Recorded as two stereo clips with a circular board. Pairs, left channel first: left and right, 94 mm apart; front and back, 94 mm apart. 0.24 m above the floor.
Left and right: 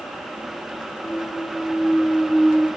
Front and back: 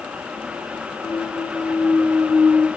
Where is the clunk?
165° left, 2 m.